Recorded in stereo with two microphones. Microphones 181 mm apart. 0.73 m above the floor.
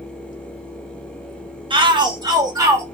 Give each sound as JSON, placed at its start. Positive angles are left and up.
{"t": 1.7, "sound": "a shout", "side_deg": -30, "distance_m": 1.2}